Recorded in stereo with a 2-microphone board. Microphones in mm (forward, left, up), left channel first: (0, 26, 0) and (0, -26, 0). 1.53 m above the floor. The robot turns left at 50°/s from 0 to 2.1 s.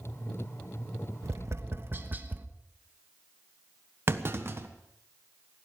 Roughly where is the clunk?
Right.